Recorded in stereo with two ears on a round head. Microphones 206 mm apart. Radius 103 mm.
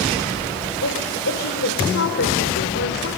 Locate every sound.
0.8 s a woman speaking: 60° left (ahead or behind), 3.5 m